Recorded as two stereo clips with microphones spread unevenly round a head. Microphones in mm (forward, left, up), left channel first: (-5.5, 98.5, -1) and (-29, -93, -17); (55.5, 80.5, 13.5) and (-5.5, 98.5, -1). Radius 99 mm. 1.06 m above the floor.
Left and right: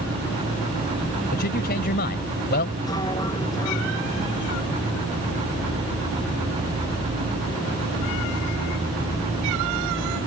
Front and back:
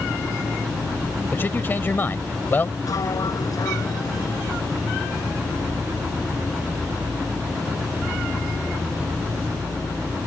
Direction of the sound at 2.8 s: 10° left.